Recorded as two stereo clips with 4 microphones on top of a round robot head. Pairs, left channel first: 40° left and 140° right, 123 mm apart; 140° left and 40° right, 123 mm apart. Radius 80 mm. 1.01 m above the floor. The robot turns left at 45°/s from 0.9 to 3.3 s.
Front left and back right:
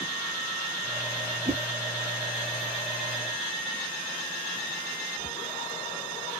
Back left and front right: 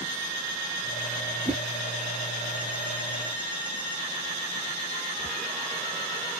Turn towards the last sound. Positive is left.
turn(degrees=175)